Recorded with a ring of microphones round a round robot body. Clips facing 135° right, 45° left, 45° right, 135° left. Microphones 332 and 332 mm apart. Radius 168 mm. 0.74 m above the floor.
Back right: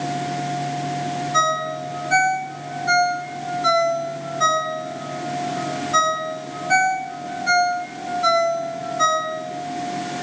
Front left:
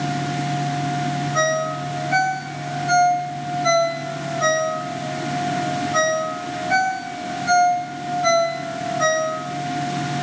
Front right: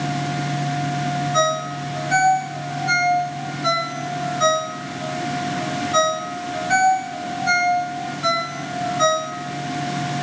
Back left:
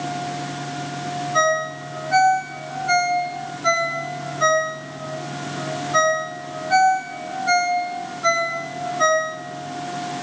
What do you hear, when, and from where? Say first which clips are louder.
1.3 s a ringtone: front left 4 dB, even; 85° right, 7 m